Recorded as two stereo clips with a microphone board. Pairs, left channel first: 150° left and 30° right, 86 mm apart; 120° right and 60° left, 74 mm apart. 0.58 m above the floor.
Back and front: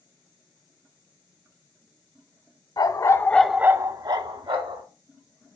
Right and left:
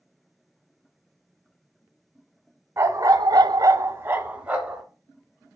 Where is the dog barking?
115° left, 1.0 m; by 4.8 s 15° right, 1.6 m.